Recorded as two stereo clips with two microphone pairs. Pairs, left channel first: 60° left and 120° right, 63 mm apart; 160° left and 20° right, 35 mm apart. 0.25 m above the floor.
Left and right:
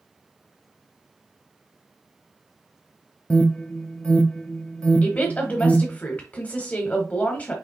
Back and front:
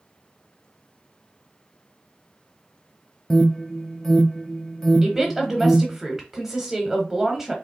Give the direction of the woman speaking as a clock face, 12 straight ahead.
11 o'clock.